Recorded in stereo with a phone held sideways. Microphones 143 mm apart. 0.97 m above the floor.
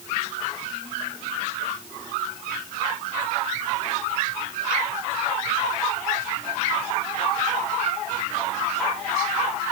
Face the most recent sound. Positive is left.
No sound to turn to.